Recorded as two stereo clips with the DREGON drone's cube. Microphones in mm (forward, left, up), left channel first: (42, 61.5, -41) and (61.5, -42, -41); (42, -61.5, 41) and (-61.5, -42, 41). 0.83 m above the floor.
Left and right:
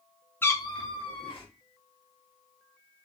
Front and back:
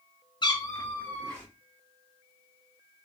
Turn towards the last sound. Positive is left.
turn(degrees=70)